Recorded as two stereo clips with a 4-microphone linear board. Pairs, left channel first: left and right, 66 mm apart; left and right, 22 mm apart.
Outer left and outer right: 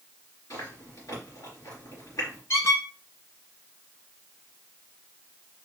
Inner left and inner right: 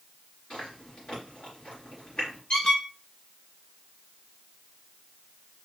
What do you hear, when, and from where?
0.5 s chewing: 55° left (ahead or behind), 3 m
2.5 s a squeak: 45° left (ahead or behind), 1.2 m